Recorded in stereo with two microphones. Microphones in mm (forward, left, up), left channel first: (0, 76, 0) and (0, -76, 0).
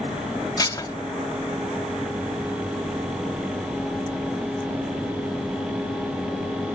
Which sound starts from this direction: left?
Dishes clattering, at 0.6 s.